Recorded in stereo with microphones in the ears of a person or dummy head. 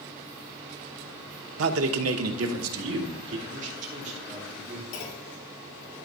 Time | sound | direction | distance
1.6 | a man speaking | 75° right (ahead or behind) | 0.8 m
3.5 | a man speaking | 45° right (ahead or behind) | 3.5 m
4.9 | a clunk | 40° left (ahead or behind) | 1.7 m